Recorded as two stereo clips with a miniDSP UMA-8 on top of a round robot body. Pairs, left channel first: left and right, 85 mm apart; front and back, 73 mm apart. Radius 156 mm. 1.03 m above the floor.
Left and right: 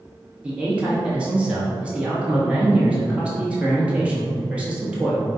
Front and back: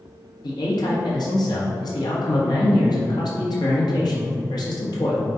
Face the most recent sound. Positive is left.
turn(degrees=-15)